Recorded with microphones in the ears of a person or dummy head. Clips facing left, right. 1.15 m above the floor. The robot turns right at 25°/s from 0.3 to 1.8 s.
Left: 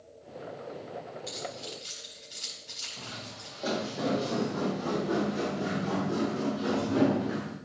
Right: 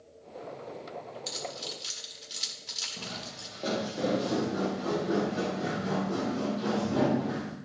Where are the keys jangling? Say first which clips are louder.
Even; 75° right (ahead or behind), 1.4 m.